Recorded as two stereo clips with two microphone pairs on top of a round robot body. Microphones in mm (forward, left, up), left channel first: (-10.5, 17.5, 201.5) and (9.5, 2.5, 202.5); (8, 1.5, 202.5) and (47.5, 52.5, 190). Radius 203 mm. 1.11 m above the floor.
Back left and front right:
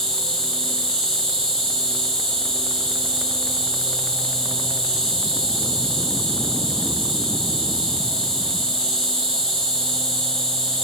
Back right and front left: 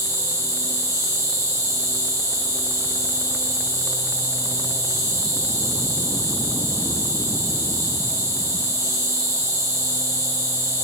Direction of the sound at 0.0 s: 85° left.